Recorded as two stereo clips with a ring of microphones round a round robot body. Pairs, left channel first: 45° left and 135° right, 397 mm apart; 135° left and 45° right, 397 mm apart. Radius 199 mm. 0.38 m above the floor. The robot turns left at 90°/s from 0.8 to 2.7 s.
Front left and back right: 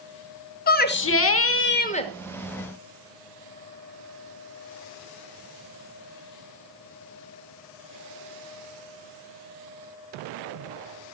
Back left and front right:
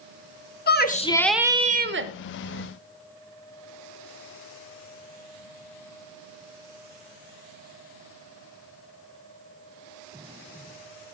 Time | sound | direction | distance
0.7 | a shout | 90° left | 0.9 m